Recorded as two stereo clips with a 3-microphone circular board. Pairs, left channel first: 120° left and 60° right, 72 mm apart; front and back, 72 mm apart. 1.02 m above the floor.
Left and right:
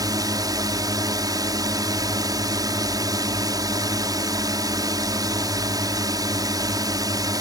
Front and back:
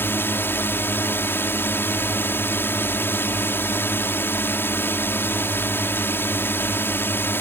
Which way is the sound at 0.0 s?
55° right.